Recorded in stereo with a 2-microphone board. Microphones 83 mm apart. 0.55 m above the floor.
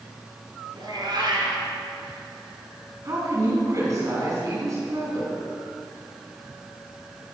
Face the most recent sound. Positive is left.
turn(degrees=-40)  # may be behind; listen again after turning